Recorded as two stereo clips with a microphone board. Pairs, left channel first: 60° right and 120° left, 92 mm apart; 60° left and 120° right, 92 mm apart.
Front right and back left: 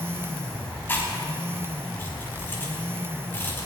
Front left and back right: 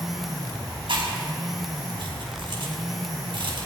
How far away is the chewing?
About 4.5 m.